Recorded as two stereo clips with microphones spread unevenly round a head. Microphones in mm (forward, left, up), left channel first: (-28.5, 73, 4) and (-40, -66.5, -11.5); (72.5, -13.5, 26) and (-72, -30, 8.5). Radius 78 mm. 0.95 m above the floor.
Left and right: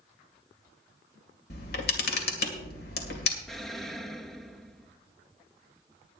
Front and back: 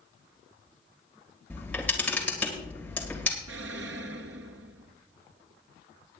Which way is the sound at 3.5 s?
175° left.